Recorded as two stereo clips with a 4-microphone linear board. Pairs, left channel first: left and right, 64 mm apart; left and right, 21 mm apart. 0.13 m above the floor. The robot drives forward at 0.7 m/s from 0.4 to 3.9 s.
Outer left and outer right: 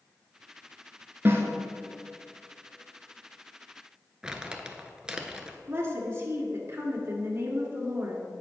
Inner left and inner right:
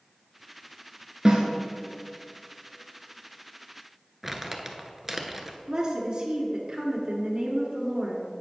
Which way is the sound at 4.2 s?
15° right (ahead or behind).